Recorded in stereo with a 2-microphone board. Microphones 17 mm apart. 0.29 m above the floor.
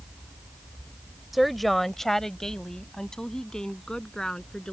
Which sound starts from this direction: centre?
A woman speaking, at 1.3 s.